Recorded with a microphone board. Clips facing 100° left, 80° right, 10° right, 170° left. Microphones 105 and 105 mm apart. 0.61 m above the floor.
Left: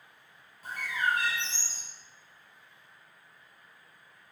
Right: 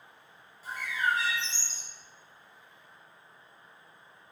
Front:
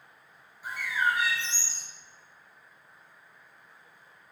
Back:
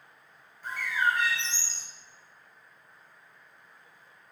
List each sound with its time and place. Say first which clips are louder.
0.6 s a bird: even, back 1 dB; 70° left, 4 m